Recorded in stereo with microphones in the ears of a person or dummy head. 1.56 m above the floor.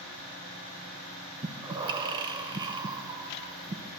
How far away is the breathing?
About 0.8 m.